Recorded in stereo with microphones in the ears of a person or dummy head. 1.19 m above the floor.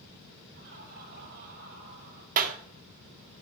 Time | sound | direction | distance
0.5 | laughter | 55° right (ahead or behind) | 7 m
2.4 | a clap | 45° right (ahead or behind) | 1.8 m